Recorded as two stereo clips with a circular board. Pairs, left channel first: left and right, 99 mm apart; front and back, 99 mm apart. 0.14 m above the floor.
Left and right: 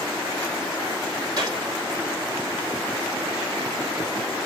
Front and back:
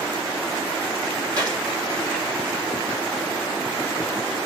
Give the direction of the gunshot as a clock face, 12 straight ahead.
4 o'clock.